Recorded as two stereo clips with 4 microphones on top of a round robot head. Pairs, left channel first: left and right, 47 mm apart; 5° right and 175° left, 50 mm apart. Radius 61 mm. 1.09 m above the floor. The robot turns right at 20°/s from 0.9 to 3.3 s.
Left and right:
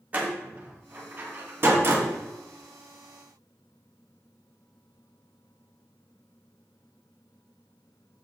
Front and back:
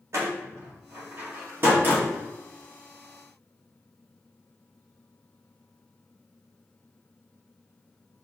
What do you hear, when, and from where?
0.1 s a door slam: 150° right, 2.0 m; by 2.1 s 125° right, 2.0 m